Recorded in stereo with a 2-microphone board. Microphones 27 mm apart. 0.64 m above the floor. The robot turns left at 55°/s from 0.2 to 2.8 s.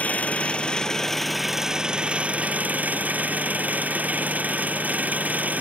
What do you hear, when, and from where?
0.0 s an engine running: 60° left; by 5.6 s 80° right